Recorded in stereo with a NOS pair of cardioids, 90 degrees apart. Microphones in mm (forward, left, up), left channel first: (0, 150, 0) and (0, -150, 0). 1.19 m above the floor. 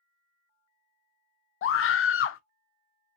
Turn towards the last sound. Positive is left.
turn(degrees=50)